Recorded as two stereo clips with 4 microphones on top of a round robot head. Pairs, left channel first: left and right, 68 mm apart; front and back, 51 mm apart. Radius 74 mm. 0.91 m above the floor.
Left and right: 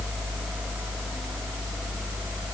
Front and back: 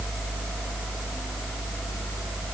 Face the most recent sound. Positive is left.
No sound to turn to.